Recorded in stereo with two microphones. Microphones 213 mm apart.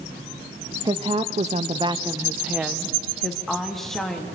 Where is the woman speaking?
20° right (ahead or behind), 1.0 m; by 4.3 s 5° left (ahead or behind), 3 m.